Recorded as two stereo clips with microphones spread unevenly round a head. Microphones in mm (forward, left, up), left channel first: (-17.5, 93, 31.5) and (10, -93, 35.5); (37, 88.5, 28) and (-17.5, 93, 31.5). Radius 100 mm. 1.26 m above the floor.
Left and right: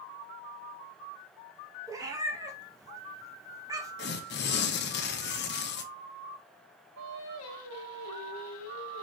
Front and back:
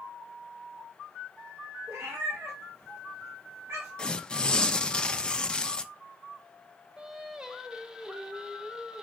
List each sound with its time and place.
1.9 s a cat meowing: 150° right, 0.8 m
4.0 s tearing paper: 70° left, 0.6 m
7.0 s singing: 100° left, 0.9 m